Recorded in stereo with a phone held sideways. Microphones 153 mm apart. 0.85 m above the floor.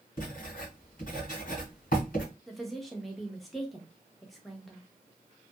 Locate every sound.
0.2 s writing: 70° left (ahead or behind), 1.7 m
2.5 s a woman speaking: centre (ahead or behind), 0.7 m